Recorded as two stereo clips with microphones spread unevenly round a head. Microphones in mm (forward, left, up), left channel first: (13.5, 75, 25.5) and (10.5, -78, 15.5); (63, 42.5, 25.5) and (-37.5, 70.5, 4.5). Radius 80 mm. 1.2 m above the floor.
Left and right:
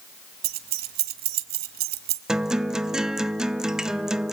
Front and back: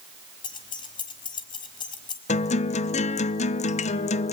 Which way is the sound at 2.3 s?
5° right.